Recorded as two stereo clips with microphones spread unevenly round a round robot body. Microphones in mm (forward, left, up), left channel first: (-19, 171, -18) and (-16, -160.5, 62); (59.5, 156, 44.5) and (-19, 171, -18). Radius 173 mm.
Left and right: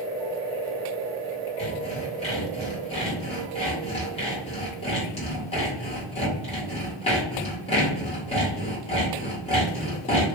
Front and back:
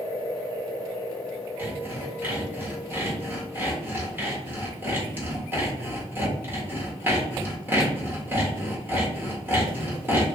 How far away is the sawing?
About 1.7 m.